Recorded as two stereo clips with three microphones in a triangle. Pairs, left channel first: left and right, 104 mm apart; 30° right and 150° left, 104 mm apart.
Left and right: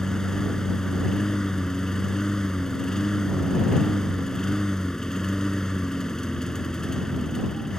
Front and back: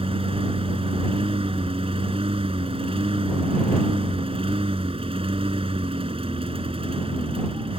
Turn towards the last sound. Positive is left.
turn(degrees=175)